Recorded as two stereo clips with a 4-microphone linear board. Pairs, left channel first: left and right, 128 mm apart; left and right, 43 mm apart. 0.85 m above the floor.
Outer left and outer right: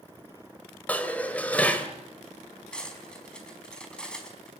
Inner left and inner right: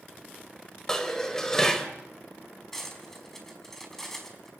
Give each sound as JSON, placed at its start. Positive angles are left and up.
{"t": 0.9, "sound": "dishes clattering", "side_deg": 10, "distance_m": 2.5}
{"t": 2.7, "sound": "cutlery clinking", "side_deg": 5, "distance_m": 4.5}